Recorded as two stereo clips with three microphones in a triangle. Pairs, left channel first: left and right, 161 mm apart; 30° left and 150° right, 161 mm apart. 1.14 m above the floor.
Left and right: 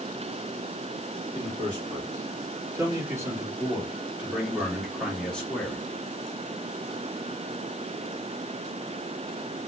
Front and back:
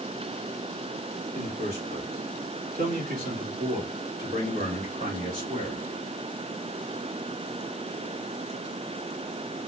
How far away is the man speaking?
About 3.5 m.